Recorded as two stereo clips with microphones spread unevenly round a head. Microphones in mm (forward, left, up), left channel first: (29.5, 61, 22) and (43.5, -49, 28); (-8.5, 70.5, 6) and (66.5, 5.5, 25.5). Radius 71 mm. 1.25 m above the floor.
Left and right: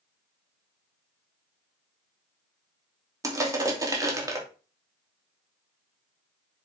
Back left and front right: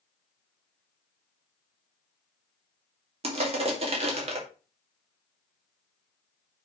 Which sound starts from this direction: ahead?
Crushing, at 3.2 s.